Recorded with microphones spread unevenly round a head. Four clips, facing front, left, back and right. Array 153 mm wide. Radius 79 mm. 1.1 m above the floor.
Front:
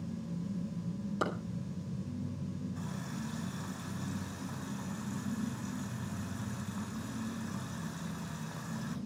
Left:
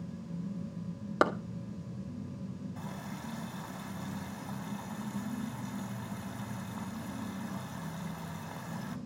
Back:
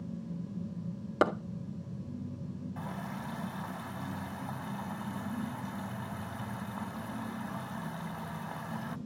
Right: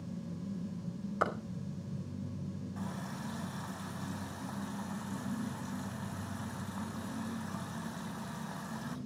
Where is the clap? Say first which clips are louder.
Left 6 dB, back 8 dB; 140° left, 1.5 m.